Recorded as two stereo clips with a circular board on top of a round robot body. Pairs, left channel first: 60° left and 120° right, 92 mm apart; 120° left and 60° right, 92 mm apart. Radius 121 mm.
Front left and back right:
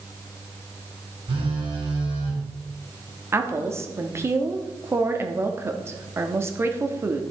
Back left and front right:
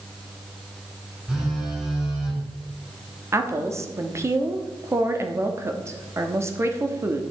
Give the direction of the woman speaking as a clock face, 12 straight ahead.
3 o'clock.